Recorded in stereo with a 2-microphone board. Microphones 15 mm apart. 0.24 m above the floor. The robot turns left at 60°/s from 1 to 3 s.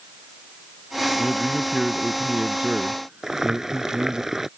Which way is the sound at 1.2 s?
20° left.